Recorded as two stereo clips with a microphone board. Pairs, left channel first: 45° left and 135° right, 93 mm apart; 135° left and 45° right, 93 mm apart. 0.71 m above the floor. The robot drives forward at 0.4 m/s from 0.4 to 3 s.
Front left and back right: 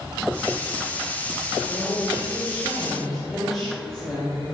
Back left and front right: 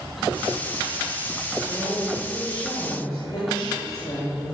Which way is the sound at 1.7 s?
120° left.